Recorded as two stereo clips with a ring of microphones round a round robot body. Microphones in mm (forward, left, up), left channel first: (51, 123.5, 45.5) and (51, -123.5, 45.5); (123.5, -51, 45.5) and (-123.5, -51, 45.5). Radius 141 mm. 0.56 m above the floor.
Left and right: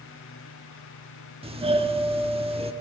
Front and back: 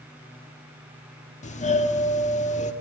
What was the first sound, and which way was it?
A doorbell, 40° right.